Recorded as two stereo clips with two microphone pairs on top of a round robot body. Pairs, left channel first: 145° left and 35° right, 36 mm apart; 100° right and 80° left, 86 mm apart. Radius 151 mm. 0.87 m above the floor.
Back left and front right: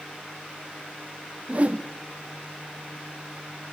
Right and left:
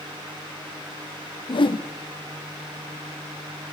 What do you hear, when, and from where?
1.5 s a whoosh: 85° right, 1.4 m